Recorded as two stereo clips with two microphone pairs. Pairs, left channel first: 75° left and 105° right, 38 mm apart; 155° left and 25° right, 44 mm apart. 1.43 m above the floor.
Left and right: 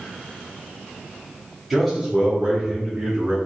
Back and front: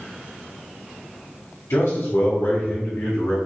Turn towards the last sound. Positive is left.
turn(degrees=-155)